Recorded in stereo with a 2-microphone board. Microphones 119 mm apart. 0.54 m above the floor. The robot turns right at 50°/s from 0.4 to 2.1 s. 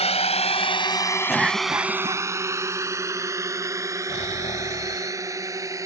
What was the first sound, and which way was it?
A drone, 60° left (ahead or behind).